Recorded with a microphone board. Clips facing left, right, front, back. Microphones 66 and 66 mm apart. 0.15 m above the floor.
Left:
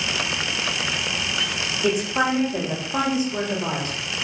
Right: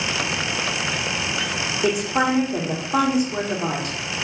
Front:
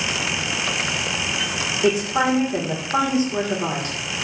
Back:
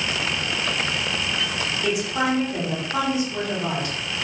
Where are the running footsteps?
No running footsteps in this recording.